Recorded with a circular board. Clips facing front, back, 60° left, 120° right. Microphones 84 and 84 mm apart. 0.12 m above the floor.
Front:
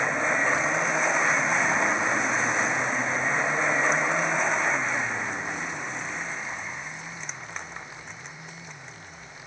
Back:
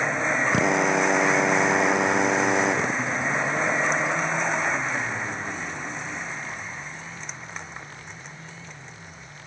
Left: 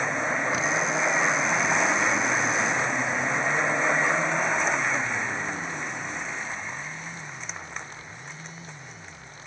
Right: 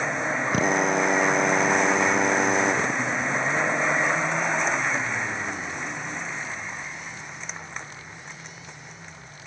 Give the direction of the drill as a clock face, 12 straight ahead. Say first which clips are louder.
Back 4 dB, right 4 dB; 5 o'clock.